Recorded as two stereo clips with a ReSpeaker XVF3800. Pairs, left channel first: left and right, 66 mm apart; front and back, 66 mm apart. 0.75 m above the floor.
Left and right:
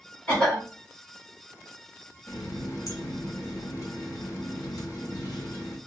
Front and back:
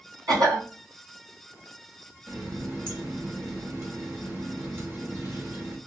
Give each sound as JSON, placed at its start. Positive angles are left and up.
{"t": 0.3, "sound": "a cough", "azimuth_deg": 165, "distance_m": 2.0}
{"t": 2.3, "sound": "a running tap", "azimuth_deg": 125, "distance_m": 1.4}